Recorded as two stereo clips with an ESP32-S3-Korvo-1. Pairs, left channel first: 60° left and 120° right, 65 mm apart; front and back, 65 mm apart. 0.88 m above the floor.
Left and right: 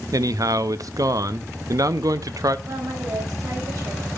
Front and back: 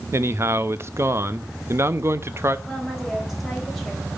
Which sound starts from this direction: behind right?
A man speaking, at 0.1 s.